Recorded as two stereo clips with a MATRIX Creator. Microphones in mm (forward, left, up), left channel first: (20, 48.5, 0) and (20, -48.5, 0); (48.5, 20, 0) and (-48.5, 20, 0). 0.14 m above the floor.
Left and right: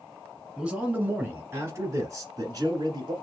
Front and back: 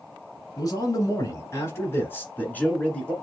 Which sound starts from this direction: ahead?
A man speaking, at 0.6 s.